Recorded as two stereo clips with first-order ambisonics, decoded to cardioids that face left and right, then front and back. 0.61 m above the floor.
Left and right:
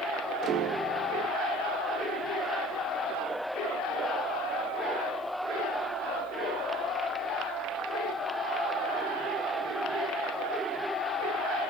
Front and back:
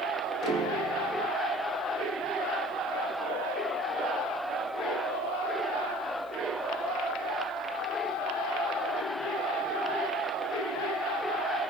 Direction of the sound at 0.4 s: 130° right.